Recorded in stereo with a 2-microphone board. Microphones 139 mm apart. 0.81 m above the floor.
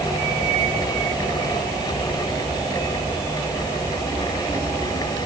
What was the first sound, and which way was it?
Only background noise.